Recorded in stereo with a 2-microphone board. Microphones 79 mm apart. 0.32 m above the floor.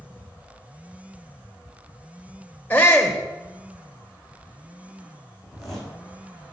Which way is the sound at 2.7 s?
20° left (ahead or behind).